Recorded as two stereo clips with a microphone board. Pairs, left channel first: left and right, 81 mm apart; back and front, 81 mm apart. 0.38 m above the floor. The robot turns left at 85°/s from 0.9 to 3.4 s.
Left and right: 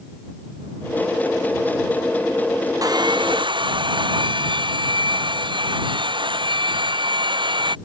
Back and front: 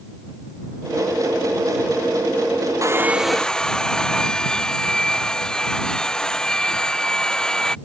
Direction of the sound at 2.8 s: 50° right.